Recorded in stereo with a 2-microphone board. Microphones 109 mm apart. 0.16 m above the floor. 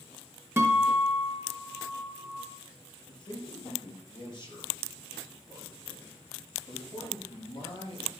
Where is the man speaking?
40° left (ahead or behind), 4 m.